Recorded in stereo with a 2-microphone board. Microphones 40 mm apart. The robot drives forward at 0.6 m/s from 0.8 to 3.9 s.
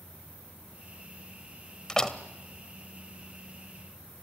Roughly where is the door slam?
Centre.